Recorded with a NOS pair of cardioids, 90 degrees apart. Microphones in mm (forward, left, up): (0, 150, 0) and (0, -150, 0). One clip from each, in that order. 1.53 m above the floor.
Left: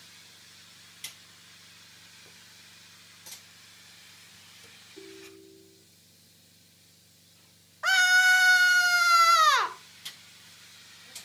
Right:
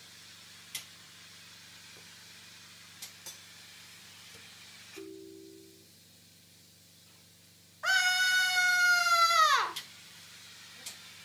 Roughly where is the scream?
Ahead left.